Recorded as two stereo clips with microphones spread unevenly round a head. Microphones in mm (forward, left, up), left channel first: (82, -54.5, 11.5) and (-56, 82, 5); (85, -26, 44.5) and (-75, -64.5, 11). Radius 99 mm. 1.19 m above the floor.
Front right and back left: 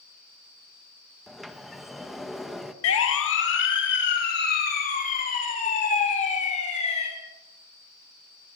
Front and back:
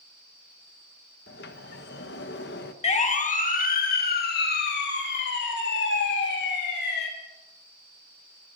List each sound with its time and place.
1.3 s a sliding door: 45° left, 1.5 m
2.8 s a siren: 40° right, 2.5 m; by 7.1 s 10° left, 6 m